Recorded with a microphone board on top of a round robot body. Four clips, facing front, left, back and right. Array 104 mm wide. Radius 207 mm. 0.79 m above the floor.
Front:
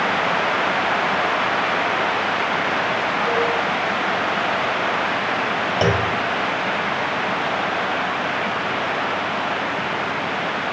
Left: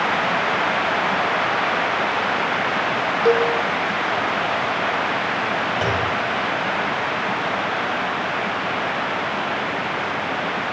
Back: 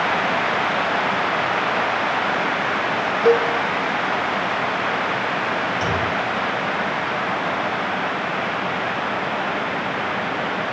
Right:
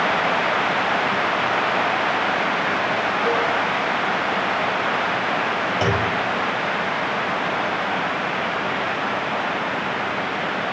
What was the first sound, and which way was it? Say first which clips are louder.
A cowbell: left 6 dB, back 7 dB; 135° left.